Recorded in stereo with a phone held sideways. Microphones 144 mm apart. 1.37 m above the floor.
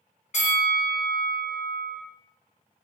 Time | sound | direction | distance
0.3 | a bell | 55° left (ahead or behind) | 1.5 m